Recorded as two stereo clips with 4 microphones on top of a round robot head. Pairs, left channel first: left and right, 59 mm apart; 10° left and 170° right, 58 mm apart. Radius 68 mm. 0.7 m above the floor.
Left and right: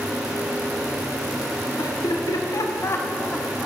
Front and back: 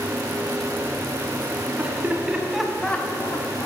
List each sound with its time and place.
1.8 s laughter: 125° left, 2.0 m; by 3.7 s 5° right, 1.1 m